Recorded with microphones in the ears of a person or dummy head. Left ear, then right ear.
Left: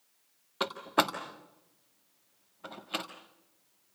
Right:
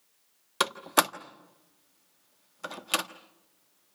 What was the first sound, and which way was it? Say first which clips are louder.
A door slam: right 3 dB; 70° right (ahead or behind).